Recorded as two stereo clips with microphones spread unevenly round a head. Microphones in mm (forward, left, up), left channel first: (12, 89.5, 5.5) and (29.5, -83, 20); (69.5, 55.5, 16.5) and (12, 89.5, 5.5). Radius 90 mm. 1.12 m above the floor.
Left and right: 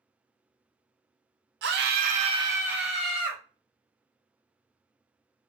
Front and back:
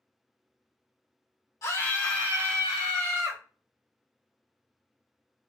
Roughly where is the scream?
Right.